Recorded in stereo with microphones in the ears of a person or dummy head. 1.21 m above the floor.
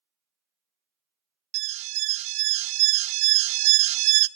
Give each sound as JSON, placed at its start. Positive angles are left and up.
{"t": 1.5, "sound": "an alarm", "side_deg": -35, "distance_m": 0.6}